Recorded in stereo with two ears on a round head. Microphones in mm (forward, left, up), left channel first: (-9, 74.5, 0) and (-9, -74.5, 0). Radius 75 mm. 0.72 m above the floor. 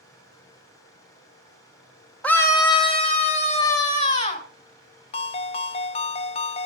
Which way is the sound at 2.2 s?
5° left (ahead or behind).